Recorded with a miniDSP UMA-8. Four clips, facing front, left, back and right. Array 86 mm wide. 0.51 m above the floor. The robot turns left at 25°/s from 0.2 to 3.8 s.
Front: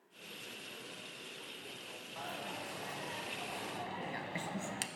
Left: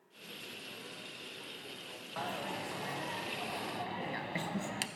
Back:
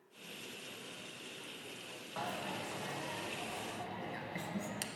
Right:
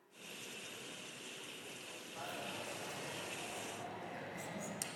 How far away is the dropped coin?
About 0.5 m.